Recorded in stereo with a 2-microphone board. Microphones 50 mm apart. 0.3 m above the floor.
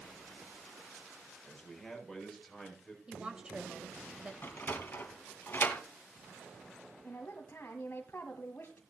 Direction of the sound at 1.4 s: Centre (ahead or behind).